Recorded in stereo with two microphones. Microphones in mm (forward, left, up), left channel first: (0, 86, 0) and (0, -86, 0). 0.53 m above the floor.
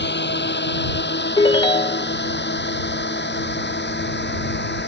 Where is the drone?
85° left.